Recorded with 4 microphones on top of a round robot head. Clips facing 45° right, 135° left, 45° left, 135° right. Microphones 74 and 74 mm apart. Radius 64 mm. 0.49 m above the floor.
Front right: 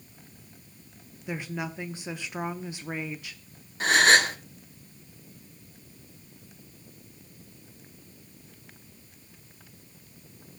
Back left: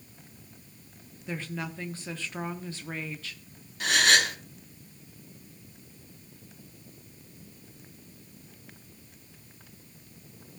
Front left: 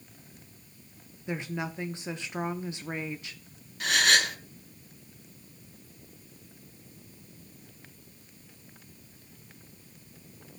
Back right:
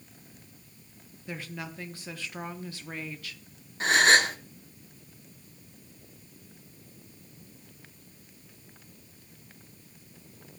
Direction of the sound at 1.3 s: 10° left.